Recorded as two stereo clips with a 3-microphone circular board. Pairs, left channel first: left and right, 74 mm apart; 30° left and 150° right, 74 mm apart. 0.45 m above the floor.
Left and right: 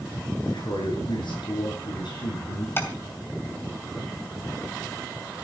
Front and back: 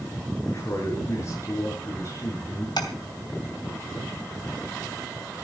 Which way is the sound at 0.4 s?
80° left.